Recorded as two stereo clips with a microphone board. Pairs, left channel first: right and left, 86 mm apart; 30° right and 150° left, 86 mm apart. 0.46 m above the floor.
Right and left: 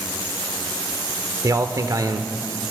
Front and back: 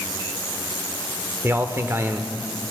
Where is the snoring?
I don't hear snoring.